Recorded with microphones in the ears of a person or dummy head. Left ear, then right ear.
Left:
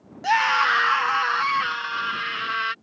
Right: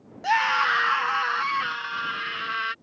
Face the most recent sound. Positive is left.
turn(degrees=0)  # may be behind; listen again after turning